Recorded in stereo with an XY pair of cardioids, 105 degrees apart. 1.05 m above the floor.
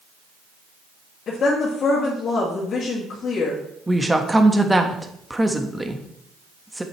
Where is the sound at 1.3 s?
60° left, 2.5 m.